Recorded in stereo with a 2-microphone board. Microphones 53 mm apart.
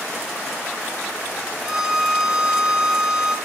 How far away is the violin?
About 3 m.